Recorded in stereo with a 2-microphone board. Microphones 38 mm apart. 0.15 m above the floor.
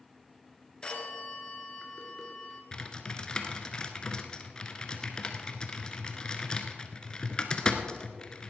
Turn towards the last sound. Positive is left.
turn(degrees=25)  # may be behind; listen again after turning